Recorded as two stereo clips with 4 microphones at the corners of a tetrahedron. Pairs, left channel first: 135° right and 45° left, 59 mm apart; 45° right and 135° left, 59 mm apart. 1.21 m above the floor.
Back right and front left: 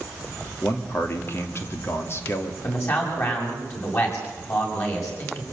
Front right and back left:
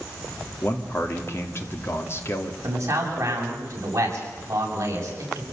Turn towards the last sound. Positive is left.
turn(degrees=180)